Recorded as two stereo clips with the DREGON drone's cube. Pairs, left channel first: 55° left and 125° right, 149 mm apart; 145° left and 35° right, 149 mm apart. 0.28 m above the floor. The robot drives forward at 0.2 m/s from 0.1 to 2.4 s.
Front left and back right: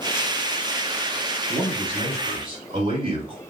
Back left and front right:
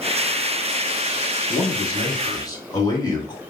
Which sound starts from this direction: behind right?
A man speaking, at 1.5 s.